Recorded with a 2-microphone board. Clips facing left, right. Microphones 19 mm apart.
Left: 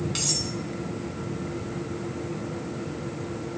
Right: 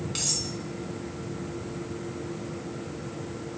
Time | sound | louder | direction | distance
0.1 | cutlery clinking | even | 15° left (ahead or behind) | 4 m